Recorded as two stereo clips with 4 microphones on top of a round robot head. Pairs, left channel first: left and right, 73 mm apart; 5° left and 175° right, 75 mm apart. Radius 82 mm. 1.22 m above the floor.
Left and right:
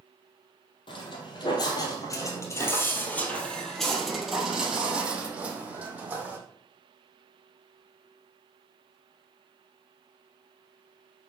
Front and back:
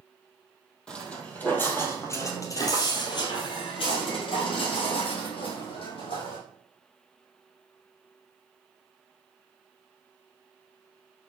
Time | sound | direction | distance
0.9 | footsteps | 80° left | 2.5 m